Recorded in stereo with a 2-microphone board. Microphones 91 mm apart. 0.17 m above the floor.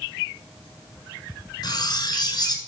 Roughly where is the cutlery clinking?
Left.